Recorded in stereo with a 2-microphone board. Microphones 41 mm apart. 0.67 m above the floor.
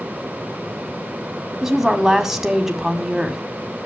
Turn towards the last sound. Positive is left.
turn(degrees=-10)  # may be behind; listen again after turning